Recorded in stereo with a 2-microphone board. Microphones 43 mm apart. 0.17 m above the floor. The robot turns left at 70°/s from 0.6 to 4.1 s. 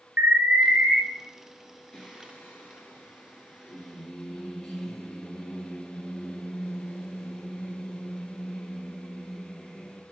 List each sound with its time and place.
0.2 s an alarm: 40° right (ahead or behind), 3 m; by 1.0 s 20° right (ahead or behind), 3 m
1.9 s singing: 155° left, 1.8 m; by 10.0 s 5° left, 1.8 m